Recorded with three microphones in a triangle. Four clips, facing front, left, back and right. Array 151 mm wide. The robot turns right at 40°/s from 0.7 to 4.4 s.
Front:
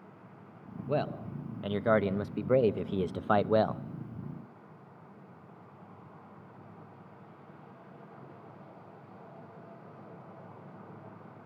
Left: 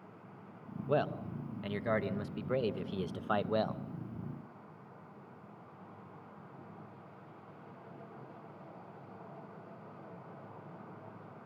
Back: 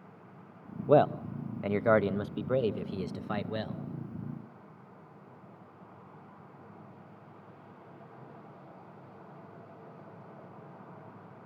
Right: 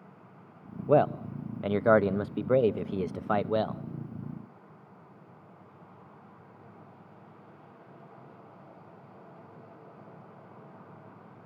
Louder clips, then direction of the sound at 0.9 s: Right 9 dB, back 9 dB; 135° right.